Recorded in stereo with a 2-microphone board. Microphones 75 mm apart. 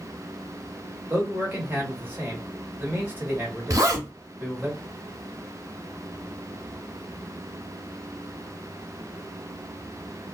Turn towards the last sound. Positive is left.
turn(degrees=-45)  # may be behind; listen again after turning